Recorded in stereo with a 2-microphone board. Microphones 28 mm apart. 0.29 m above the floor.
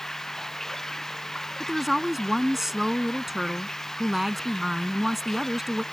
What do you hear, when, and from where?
0.0 s running water: 20° left (ahead or behind)
1.6 s a woman speaking: 15° right (ahead or behind)